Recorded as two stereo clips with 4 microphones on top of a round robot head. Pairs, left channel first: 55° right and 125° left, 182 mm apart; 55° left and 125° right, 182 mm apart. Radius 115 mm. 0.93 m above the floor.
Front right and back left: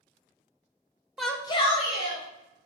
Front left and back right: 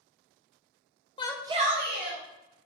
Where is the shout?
40° left, 0.5 m; by 2.2 s 110° right, 1.2 m.